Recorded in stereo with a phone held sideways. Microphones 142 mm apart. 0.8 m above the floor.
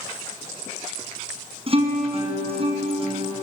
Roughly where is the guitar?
Right.